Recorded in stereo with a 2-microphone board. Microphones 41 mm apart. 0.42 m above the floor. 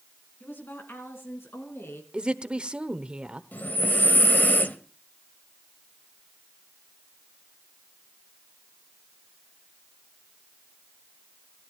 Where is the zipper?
I don't hear a zipper.